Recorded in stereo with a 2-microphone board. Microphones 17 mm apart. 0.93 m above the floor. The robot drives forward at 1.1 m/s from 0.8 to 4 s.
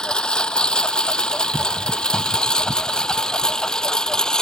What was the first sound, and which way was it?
A lawn mower, 60° left (ahead or behind).